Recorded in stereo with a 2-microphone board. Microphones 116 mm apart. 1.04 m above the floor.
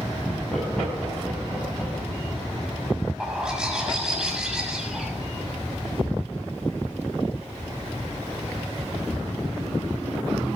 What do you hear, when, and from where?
0.2 s laughter: 5° left (ahead or behind), 6 m; by 1.9 s 10° left (ahead or behind), 7 m
3.2 s a bird: 5° right (ahead or behind), 6.5 m